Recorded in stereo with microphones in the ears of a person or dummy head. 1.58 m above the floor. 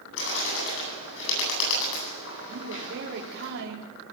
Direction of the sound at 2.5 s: 70° right (ahead or behind).